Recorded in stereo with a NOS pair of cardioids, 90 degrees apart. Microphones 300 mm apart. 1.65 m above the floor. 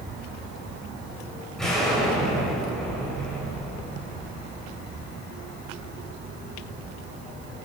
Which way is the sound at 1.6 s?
Straight ahead.